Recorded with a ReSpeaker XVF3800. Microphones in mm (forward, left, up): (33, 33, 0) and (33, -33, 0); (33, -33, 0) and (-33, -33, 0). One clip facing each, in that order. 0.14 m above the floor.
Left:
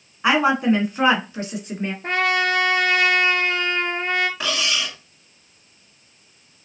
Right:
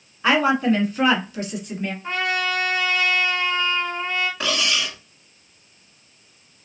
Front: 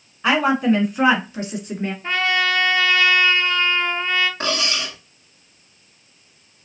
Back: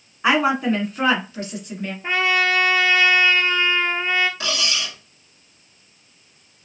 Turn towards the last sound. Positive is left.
turn(degrees=5)